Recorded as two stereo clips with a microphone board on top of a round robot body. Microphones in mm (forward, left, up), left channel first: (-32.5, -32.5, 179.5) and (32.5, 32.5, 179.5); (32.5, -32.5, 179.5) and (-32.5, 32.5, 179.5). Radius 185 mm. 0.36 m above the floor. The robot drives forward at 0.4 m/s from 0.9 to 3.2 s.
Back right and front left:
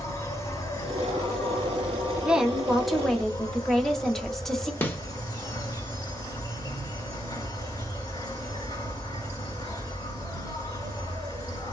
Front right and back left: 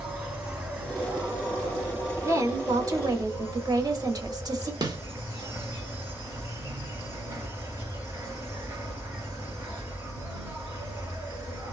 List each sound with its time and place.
0.0 s an insect: 160° right, 2 m; by 11.7 s 170° right, 2.5 m
2.2 s a woman speaking: 115° left, 1.1 m; by 4.7 s 140° left, 1.3 m
4.8 s a snare drum: 165° left, 1.2 m